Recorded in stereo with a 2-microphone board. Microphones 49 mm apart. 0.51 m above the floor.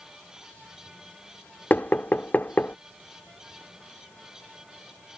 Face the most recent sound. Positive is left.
turn(degrees=35)  # may be behind; listen again after turning